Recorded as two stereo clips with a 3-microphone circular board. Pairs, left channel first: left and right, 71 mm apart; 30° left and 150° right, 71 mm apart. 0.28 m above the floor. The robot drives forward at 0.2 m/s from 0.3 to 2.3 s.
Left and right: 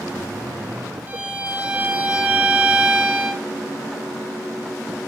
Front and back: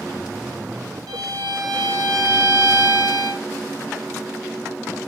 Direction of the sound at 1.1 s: 155° right.